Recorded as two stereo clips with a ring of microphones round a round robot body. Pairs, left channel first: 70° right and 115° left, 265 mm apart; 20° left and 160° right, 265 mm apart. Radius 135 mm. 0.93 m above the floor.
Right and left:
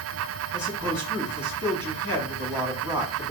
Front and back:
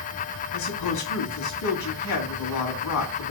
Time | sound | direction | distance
0.5 | a man speaking | 40° left | 1.8 m